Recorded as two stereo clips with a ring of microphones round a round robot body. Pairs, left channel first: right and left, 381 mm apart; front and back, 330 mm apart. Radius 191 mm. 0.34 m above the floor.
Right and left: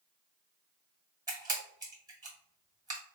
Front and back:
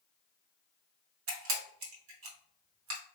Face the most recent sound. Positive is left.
turn(degrees=165)